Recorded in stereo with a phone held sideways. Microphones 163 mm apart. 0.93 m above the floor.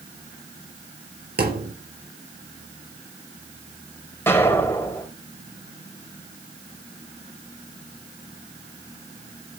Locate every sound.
1.4 s a thud: 80° right, 4.5 m
4.3 s an explosion: 15° left (ahead or behind), 5 m